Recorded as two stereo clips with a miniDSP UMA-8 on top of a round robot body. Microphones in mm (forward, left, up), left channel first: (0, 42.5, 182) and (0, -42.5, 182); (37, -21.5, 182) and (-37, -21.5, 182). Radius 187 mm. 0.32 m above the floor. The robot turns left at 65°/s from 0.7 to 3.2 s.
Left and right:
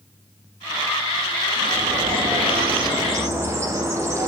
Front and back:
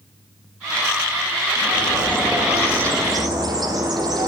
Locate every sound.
1.6 s a bird: 45° right, 9.5 m; by 4.3 s 150° right, 9.5 m